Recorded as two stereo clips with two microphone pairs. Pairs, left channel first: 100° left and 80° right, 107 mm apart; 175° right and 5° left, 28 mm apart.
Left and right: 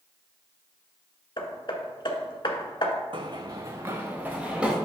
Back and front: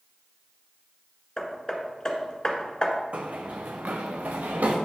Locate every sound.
1.4 s hammering: 120° left, 1.2 m
3.1 s running footsteps: 40° right, 0.8 m; by 4.8 s 5° left, 1.5 m